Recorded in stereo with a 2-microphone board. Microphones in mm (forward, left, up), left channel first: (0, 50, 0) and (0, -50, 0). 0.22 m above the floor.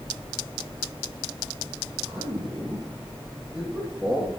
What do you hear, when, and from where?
2.0 s a man speaking: 10° right (ahead or behind), 7.5 m; by 4.3 s 5° right (ahead or behind), 9.5 m